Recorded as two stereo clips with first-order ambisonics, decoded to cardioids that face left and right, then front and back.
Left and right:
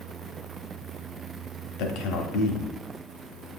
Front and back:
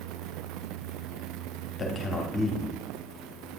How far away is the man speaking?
About 0.9 m.